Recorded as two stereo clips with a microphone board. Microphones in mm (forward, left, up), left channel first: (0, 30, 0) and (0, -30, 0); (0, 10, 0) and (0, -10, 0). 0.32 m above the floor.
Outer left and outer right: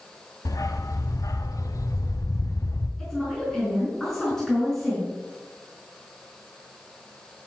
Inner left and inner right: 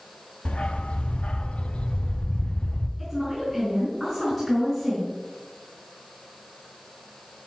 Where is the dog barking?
75° left (ahead or behind), 0.8 m.